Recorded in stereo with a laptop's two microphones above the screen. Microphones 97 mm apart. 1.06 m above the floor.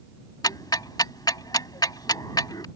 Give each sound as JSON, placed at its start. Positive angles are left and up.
{"t": 0.4, "sound": "ticking", "side_deg": 45}